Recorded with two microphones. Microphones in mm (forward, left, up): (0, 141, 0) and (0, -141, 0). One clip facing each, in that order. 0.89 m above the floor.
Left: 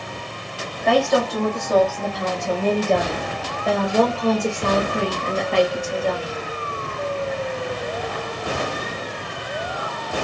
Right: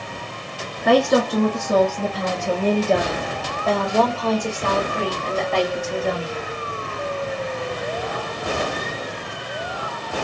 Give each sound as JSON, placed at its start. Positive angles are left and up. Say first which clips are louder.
{"t": 0.8, "sound": "a woman speaking", "louder": "right 2 dB", "side_deg": -55, "distance_m": 1.6}